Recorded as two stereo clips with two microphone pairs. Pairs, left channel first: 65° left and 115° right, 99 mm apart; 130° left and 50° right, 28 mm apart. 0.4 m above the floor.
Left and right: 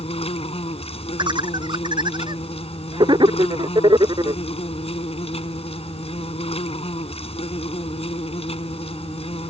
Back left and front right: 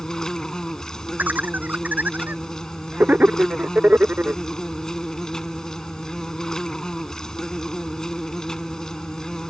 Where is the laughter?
70° right.